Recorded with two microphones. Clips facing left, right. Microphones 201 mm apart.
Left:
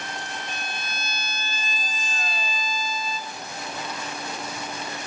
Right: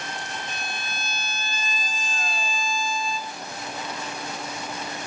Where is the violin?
45° left (ahead or behind), 1.9 m.